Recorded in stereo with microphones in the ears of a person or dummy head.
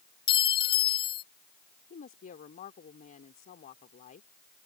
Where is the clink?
30° left (ahead or behind).